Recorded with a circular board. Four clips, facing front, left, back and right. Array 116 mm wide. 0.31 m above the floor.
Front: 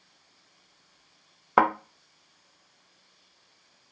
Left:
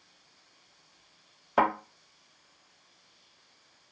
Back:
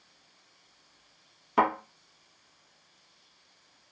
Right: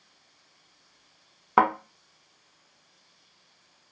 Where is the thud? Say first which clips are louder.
Right 4 dB, front 3 dB; 45° right, 1.1 m.